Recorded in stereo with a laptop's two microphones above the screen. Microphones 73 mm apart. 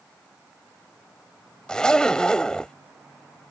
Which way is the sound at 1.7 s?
10° left (ahead or behind).